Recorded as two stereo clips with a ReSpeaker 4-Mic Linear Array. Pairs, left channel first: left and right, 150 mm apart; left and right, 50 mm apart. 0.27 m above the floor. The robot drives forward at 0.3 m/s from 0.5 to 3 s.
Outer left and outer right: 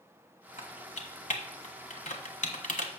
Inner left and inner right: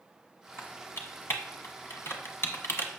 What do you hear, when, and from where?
0.6 s typing on a keyboard: 55° left (ahead or behind), 1.5 m